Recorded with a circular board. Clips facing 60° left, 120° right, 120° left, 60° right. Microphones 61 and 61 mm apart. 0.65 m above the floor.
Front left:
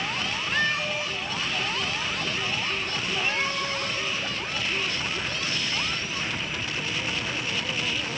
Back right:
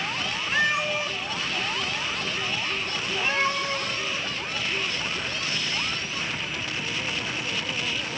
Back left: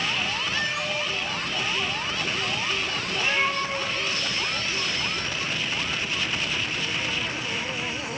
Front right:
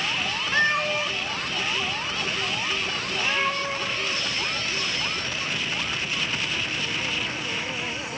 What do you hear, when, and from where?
0.5 s a cat meowing: 40° right, 0.8 m; by 4.0 s 165° left, 3.5 m